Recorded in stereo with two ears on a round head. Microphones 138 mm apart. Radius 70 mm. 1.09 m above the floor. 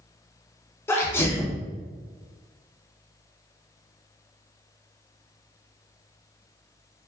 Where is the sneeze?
15° left (ahead or behind), 0.5 m.